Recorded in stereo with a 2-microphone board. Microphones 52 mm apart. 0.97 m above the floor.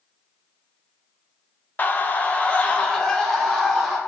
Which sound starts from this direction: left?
A scream, at 1.8 s.